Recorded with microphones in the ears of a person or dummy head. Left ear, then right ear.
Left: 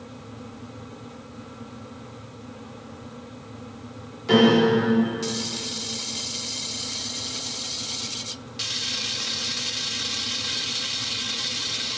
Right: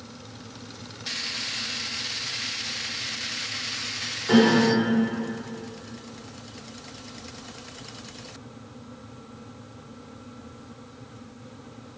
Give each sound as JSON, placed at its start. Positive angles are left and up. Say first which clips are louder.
{"t": 4.3, "sound": "a piano", "louder": "left 2 dB", "side_deg": 0, "distance_m": 4.5}